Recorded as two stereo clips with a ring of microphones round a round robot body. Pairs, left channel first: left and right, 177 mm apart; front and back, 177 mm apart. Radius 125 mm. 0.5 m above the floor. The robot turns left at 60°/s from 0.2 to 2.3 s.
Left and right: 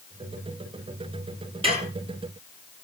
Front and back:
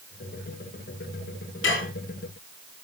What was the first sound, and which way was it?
Dishes clattering, 30° right.